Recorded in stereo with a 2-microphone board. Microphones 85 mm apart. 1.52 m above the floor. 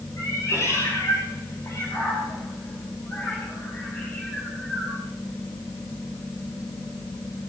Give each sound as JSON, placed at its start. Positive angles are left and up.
{"t": 0.2, "sound": "a cat meowing", "side_deg": 40, "distance_m": 10.0}